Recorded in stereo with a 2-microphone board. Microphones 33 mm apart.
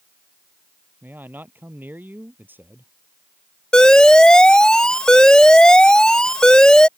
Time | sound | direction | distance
1.0 | a man speaking | 80° right | ?
3.7 | an alarm | 25° left (ahead or behind) | ?